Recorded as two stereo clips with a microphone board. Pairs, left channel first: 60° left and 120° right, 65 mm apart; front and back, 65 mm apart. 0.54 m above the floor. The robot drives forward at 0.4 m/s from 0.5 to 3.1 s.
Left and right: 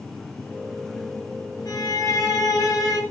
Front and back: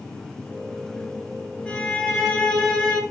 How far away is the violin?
About 5 m.